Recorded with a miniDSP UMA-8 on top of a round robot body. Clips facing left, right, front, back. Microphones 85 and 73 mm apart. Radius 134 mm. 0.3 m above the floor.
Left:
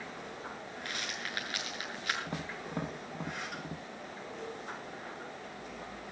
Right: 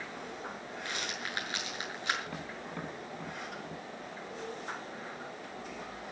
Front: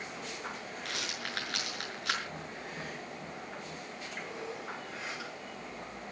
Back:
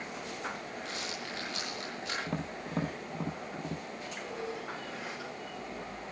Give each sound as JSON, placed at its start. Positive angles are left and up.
{"t": 0.8, "sound": "a rattle", "azimuth_deg": -25, "distance_m": 6.5}
{"t": 2.3, "sound": "tapping", "azimuth_deg": 155, "distance_m": 2.5}